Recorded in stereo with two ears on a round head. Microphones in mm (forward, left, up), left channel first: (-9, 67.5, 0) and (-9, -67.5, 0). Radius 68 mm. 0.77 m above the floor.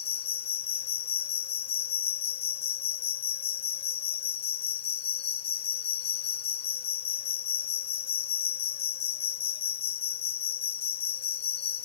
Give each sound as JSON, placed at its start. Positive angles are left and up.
{"t": 0.0, "sound": "an insect", "side_deg": 40, "distance_m": 0.7}